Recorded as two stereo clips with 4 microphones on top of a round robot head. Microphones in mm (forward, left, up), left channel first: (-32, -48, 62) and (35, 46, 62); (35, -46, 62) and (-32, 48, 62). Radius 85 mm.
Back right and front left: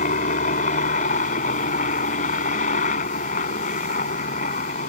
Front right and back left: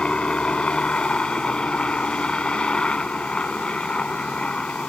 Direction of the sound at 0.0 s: 135° right.